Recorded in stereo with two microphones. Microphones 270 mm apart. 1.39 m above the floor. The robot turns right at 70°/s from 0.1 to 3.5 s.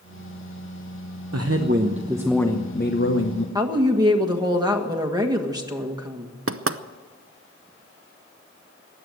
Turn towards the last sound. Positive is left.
turn(degrees=-55)  # may be behind; listen again after turning